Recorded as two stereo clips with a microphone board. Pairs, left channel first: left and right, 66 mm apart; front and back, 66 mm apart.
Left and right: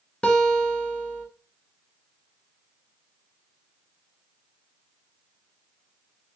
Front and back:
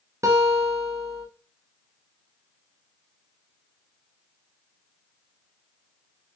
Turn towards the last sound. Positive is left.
turn(degrees=160)